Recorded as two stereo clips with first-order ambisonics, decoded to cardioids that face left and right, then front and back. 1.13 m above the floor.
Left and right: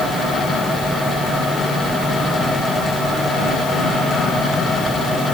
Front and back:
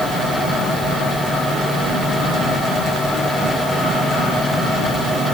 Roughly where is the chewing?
I don't hear chewing.